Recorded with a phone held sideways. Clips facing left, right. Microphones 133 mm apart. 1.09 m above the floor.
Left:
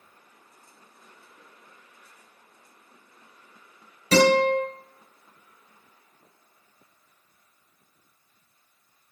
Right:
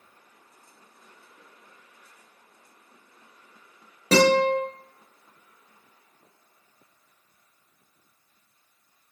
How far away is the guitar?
About 1.7 m.